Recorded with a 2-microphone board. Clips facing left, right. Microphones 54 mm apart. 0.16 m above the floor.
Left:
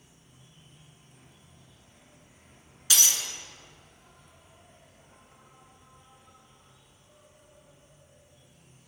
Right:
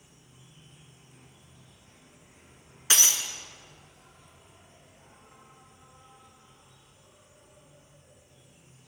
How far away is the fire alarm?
No fire alarm in this recording.